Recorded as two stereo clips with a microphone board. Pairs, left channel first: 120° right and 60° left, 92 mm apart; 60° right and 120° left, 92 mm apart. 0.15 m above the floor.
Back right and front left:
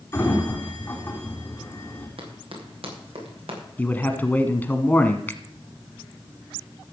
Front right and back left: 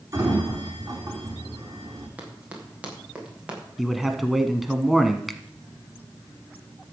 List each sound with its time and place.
0.1 s a sliding door: 170° left, 4.5 m
2.2 s running footsteps: 45° left, 5 m; by 3.6 s 40° left, 6 m
3.8 s a man speaking: 155° right, 1.0 m
5.3 s a finger snap: 150° right, 0.9 m